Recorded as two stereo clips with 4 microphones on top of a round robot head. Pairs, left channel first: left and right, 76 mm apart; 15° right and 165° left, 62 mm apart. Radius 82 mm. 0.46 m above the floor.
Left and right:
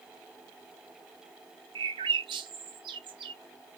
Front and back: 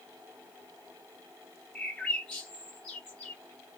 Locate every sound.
1.8 s a bird: 95° right, 0.8 m